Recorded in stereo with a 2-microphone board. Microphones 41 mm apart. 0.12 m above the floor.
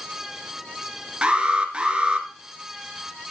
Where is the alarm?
25° right (ahead or behind), 1.9 m.